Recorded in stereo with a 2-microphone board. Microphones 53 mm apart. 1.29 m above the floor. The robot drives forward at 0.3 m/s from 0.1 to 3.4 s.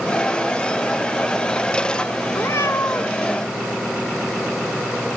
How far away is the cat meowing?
About 1.7 m.